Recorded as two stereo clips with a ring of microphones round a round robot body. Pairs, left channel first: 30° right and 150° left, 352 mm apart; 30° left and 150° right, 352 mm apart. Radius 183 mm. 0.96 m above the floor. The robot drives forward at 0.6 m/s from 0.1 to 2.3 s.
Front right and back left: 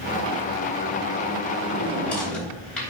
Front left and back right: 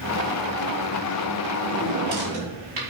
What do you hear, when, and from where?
1.6 s a drawer: 115° right, 5 m; by 2.9 s 120° right, 5 m